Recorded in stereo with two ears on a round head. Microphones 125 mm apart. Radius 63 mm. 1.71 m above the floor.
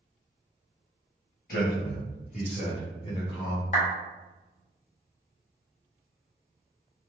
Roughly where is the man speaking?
Left.